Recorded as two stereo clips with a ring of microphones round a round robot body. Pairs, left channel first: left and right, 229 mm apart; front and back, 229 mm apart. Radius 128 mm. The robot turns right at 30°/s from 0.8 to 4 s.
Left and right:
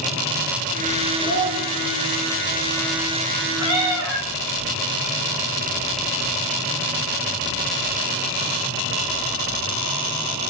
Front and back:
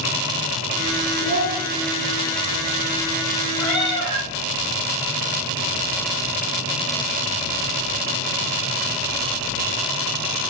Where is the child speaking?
10° left, 3.5 m; by 1.6 s 20° left, 3.5 m.